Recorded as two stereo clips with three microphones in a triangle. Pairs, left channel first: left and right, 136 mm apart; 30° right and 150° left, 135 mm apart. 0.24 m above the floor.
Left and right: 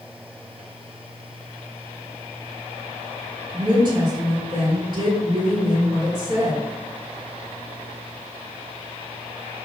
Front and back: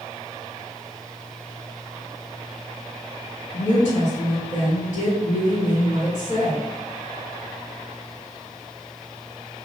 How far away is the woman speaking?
About 1.9 m.